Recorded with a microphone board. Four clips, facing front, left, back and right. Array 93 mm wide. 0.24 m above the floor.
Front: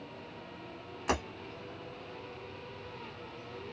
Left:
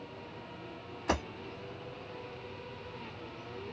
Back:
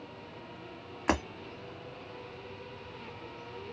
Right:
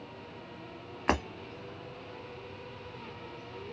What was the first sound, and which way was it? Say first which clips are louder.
Breaking glass: right 3 dB, back 3 dB; 120° right.